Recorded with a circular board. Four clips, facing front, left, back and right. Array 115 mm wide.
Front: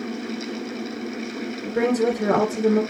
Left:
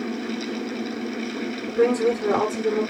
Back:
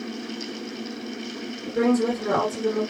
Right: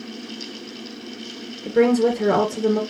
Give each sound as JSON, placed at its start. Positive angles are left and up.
{"t": 1.6, "sound": "a woman speaking", "azimuth_deg": -65, "distance_m": 3.0}